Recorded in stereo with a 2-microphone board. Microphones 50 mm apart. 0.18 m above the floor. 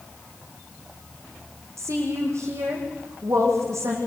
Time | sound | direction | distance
1.8 | a woman speaking | 75° right (ahead or behind) | 9 m